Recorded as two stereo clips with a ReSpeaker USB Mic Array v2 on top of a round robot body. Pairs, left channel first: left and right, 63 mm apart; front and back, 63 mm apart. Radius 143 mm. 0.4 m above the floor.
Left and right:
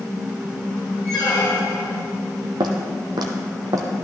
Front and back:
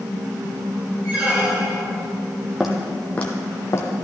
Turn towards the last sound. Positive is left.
turn(degrees=-50)